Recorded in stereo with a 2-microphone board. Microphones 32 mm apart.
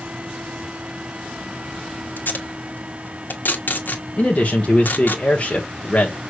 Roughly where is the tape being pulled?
Left.